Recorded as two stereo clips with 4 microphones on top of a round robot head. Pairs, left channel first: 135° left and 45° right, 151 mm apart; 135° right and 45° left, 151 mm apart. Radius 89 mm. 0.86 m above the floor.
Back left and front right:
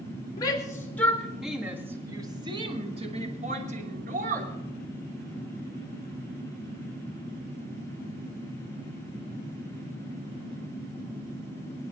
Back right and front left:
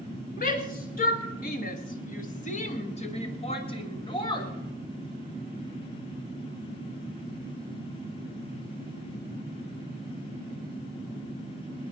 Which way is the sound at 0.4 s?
160° right.